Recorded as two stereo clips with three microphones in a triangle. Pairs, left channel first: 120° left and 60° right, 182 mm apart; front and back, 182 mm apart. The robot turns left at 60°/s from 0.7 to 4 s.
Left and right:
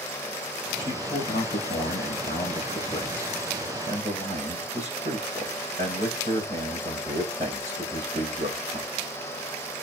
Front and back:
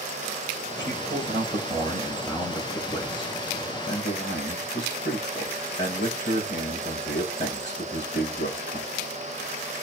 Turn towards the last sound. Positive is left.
turn(degrees=-10)